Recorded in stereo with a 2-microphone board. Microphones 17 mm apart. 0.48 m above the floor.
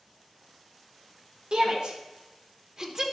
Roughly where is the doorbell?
No doorbell in this recording.